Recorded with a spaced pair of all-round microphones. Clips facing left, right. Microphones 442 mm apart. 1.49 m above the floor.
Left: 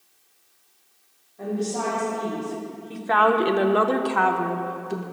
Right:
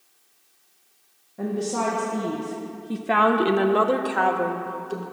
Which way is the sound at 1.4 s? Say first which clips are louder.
Right 1 dB; 80° right.